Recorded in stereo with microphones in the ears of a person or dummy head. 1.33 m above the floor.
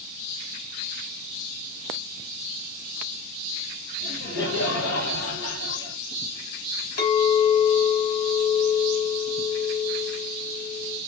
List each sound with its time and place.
4.0 s laughter: 65° left (ahead or behind), 1.9 m
7.0 s a clink: 55° left (ahead or behind), 1.7 m